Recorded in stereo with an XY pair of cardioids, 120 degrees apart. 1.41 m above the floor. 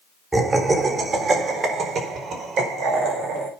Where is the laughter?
25° right, 4 m; by 3.5 s 80° right, 5.5 m.